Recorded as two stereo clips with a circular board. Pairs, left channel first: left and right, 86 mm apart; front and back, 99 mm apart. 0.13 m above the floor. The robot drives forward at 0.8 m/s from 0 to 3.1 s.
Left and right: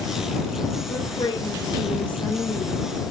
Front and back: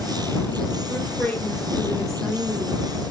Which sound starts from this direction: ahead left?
A woman speaking, at 0.9 s.